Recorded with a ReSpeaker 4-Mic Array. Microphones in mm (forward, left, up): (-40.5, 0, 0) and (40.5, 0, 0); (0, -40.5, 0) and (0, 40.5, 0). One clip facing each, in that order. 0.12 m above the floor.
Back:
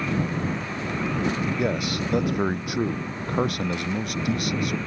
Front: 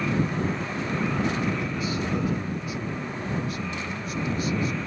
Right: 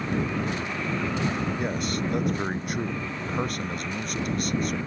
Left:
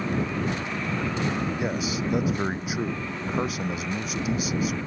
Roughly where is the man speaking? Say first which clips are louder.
Back 3 dB, left 1 dB; behind.